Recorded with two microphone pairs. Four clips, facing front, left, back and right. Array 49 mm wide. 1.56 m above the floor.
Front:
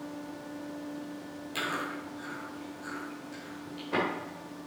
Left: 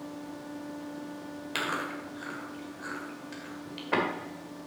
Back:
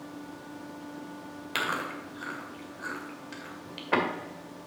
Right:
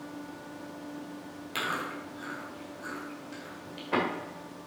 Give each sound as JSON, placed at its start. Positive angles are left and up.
{"t": 1.6, "sound": "chewing", "azimuth_deg": 160, "distance_m": 2.0}